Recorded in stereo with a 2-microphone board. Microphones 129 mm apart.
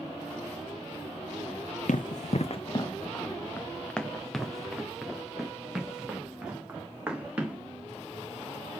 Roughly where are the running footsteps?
Left.